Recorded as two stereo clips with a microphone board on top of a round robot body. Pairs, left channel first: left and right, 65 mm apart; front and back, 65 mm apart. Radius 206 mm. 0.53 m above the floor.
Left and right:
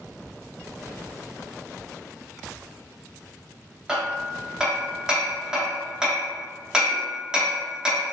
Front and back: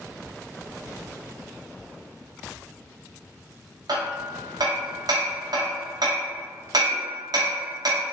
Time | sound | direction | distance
3.9 | hammering | 165° right | 0.8 m